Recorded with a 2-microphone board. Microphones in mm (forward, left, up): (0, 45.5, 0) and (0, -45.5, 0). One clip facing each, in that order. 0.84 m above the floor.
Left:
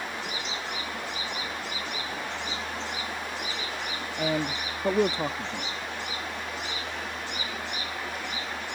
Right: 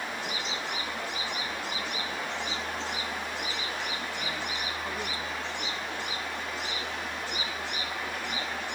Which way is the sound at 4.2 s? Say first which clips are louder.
Left 6 dB; 70° left (ahead or behind).